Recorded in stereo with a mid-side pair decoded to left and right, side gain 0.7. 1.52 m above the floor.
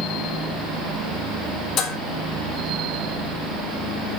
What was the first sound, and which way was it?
Dishes clattering, 60° left.